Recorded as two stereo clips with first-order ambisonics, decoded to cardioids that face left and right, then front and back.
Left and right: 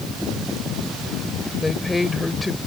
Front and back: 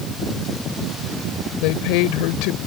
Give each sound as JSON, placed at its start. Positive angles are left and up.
{"t": 1.6, "sound": "a woman speaking", "azimuth_deg": 10}